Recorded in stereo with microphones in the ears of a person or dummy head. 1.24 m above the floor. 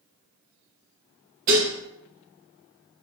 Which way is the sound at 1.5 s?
40° right (ahead or behind).